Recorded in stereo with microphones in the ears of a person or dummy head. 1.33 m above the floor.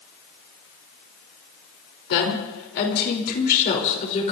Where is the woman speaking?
75° left (ahead or behind), 4 m; by 4.3 s 35° left (ahead or behind), 4 m.